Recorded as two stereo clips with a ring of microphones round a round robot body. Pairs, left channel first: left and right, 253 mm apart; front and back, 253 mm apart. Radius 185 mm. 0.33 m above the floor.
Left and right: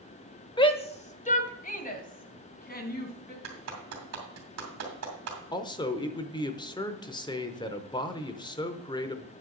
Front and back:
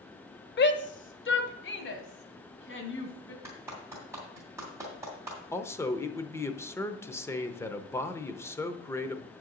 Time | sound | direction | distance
0.6 | a shout | 25° left | 1.3 m
3.4 | a clap | 100° right | 2.5 m
5.5 | a man speaking | 60° left | 0.8 m